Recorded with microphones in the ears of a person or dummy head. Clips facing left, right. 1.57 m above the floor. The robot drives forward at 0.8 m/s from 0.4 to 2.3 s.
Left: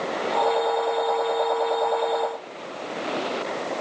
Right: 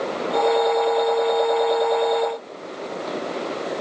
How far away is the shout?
No shout in this recording.